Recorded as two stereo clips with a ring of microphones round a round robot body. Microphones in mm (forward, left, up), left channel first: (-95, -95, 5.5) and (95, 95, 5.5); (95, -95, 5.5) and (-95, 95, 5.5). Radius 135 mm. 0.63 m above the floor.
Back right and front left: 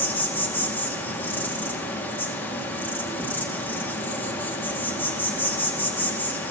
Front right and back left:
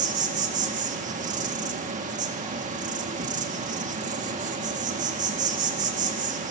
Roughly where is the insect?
Behind left.